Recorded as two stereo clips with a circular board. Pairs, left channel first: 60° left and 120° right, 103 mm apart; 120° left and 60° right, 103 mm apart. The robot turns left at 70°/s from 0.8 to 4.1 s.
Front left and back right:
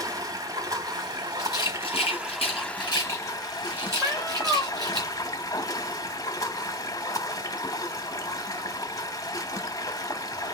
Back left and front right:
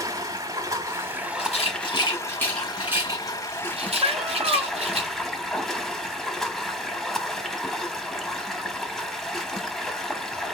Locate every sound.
0.0 s running water: 95° right, 1.2 m; by 10.6 s 35° left, 1.2 m
1.4 s a rattle: 120° left, 2 m; by 5.0 s 70° right, 2 m
4.0 s a cat meowing: 45° right, 1.2 m; by 4.7 s 55° right, 1.2 m